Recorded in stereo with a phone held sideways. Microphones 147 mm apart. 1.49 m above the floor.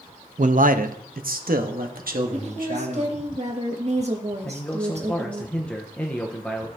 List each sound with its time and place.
0.4 s a man speaking: 60° right (ahead or behind), 0.6 m; by 3.1 s 70° right (ahead or behind), 1.8 m
2.3 s a woman speaking: 45° right (ahead or behind), 1.6 m
4.4 s a man speaking: 10° left (ahead or behind), 0.9 m